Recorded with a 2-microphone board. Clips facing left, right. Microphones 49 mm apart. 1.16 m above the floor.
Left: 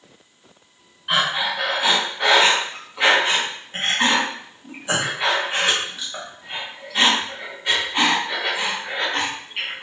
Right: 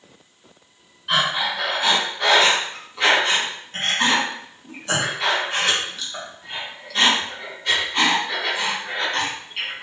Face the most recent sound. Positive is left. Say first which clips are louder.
# even
turn(degrees=15)  # may be behind; listen again after turning